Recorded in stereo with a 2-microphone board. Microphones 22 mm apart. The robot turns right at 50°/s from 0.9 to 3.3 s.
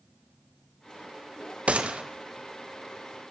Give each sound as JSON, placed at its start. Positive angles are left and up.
{"t": 1.7, "sound": "a gunshot", "side_deg": -70, "distance_m": 1.1}